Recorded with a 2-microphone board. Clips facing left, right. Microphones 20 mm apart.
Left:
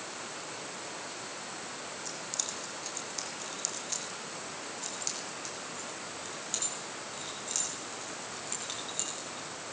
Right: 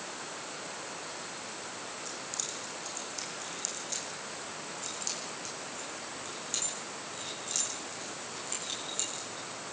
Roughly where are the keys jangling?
Left.